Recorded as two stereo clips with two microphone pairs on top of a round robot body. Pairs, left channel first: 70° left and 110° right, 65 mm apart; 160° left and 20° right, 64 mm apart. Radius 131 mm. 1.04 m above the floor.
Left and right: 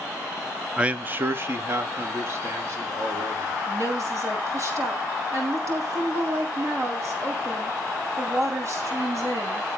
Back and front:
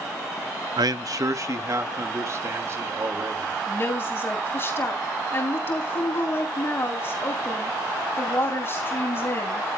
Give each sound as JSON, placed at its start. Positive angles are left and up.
{"t": 0.8, "sound": "a man speaking", "azimuth_deg": -40, "distance_m": 0.5}
{"t": 3.7, "sound": "a woman speaking", "azimuth_deg": -150, "distance_m": 7.5}